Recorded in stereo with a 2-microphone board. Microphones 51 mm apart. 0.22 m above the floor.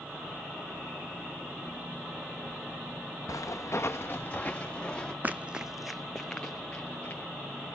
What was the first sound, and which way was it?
Footsteps, 80° left.